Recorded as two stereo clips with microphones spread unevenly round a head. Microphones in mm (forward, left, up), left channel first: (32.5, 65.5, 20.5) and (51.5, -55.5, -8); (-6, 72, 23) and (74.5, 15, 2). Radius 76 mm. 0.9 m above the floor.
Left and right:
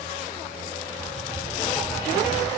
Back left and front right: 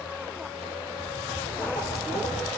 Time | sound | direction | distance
1.0 | writing | 165° left | 1.4 m